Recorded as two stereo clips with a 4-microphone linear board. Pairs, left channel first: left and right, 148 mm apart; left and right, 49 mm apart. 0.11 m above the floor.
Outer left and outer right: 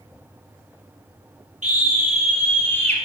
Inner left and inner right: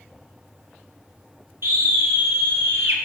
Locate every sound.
1.6 s a scream: 55° right (ahead or behind), 2.5 m; by 3.0 s 50° right (ahead or behind), 2.0 m